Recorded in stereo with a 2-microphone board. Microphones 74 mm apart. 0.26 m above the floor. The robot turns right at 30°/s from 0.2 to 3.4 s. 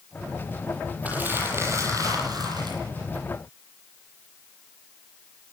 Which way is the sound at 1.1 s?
160° right.